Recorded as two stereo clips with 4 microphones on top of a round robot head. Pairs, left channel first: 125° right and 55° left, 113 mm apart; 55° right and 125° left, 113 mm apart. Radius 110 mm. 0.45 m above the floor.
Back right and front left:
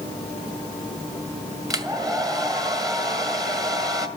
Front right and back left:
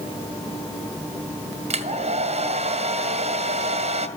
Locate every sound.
1.7 s a hair dryer: 110° left, 1.6 m